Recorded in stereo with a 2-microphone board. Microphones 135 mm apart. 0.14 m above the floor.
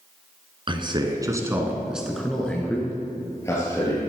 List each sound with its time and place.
0.7 s a man speaking: 35° right (ahead or behind), 1.7 m; by 4.1 s 25° left (ahead or behind), 3.5 m